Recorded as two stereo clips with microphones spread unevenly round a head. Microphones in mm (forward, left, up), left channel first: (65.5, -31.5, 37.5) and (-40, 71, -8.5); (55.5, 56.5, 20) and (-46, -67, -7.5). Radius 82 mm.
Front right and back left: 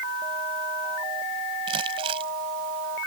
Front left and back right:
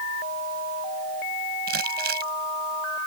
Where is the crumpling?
165° right.